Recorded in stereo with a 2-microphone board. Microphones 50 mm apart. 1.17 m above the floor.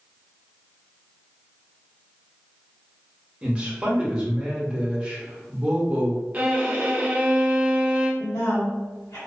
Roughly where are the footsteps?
I don't hear footsteps.